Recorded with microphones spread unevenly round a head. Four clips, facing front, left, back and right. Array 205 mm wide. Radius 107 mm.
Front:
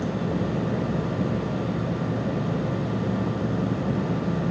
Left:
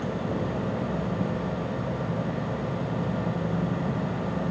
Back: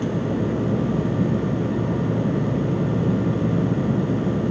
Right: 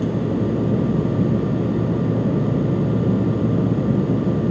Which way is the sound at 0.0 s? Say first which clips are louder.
Right 8 dB, back 3 dB; 110° right.